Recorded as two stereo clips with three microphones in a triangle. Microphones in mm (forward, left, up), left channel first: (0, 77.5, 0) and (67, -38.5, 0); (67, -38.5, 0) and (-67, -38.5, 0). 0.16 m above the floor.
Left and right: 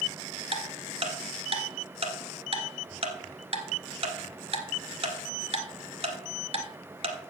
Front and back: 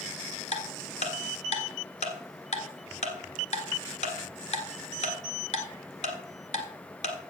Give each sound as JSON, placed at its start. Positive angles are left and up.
{"t": 0.5, "sound": "ticking", "azimuth_deg": -20, "distance_m": 1.7}